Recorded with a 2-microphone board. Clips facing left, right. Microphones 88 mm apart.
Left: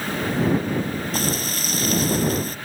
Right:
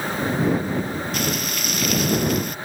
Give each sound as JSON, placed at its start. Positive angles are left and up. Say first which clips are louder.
{"t": 1.1, "sound": "frying", "louder": "even", "side_deg": 35}